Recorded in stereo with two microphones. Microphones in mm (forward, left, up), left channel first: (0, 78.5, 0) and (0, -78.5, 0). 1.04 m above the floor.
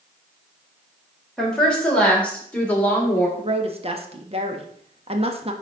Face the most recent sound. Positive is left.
turn(degrees=-40)  # may be behind; listen again after turning